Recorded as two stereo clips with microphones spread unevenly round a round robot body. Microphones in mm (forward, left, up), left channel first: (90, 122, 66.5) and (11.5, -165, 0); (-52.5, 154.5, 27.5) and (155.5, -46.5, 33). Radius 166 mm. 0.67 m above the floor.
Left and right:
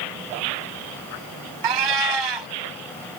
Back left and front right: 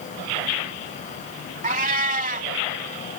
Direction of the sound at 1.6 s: 110° right.